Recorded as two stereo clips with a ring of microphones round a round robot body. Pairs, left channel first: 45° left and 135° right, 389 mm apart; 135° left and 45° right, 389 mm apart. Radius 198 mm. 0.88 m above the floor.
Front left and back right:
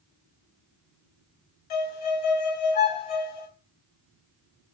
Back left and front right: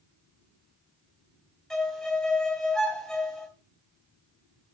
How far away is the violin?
About 2.5 m.